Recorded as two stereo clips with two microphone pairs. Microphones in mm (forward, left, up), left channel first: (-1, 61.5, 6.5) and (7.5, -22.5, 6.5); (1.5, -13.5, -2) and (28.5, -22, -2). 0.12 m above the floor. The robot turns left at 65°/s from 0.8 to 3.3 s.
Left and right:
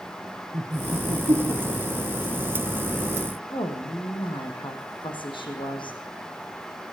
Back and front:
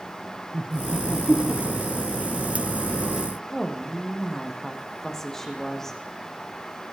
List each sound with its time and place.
0.5 s laughter: 50° right, 3 m; by 2.2 s 145° right, 3 m
3.5 s a woman speaking: 85° left, 5 m